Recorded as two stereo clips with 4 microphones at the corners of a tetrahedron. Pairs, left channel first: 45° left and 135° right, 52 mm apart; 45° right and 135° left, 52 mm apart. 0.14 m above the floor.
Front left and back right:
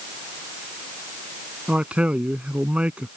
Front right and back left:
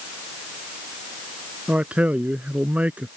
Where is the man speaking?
175° left.